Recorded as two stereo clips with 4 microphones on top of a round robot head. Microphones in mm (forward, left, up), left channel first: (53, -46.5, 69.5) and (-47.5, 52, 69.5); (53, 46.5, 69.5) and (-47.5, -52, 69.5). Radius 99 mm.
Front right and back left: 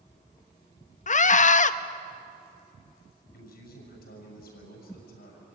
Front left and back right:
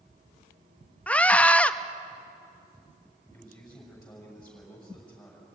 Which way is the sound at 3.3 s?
35° right.